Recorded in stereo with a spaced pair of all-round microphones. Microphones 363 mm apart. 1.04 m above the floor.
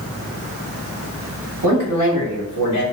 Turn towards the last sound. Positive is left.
turn(degrees=-45)  # may be behind; listen again after turning